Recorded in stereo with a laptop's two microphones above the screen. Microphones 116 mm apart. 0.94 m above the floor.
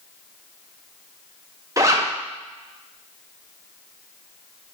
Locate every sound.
1.8 s a zipper: 30° right (ahead or behind), 1.4 m